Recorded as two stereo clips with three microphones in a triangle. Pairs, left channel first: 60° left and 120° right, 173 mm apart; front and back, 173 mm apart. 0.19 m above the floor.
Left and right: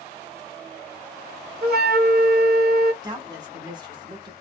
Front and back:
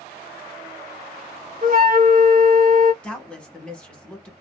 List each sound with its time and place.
1.6 s a flute: 145° right, 0.7 m
3.0 s a woman speaking: 80° right, 1.2 m